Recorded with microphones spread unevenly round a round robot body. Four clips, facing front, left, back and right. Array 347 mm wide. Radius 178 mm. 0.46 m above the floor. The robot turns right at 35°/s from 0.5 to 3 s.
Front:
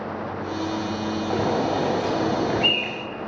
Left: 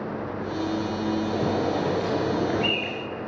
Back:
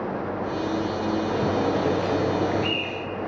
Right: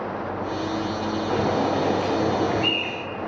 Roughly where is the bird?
Ahead right.